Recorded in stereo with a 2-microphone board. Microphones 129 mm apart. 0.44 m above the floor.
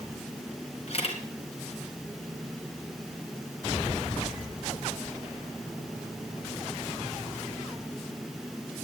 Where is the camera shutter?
50° left (ahead or behind), 2 m.